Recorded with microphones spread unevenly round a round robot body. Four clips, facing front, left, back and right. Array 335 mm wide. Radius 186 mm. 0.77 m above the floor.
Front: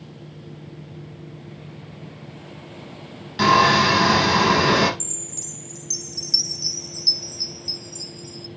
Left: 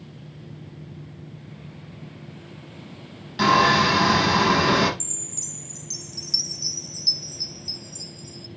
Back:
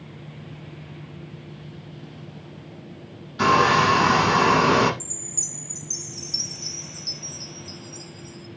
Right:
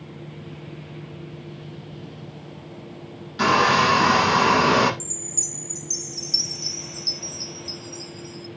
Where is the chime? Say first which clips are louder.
Right 4 dB, front 2 dB; 10° right, 1.4 m.